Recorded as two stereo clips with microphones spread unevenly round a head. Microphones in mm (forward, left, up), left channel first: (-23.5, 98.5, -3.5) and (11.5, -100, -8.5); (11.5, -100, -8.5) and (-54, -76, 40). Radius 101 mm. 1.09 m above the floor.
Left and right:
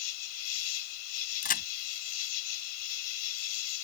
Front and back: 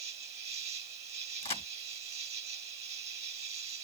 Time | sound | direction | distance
0.0 | an insect | 115° left | ?
1.4 | a crack | 45° left | ?